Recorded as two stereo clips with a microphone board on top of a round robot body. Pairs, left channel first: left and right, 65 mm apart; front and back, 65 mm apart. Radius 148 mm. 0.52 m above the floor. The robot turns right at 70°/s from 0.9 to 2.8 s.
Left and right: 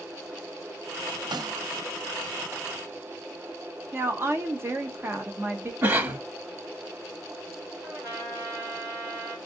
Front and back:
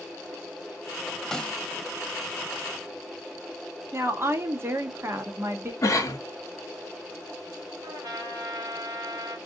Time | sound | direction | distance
1.3 | a snare drum | 85° right | 0.7 m
3.9 | a woman speaking | 135° right | 1.1 m
5.8 | a cough | 35° right | 1.4 m
7.8 | a trumpet | 150° right | 1.8 m